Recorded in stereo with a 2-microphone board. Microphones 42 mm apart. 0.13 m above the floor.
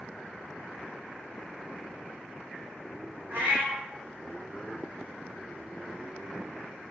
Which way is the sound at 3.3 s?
50° right (ahead or behind).